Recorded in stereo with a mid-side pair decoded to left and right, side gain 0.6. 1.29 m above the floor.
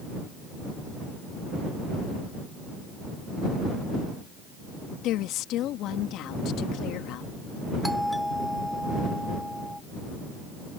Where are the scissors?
No scissors in this recording.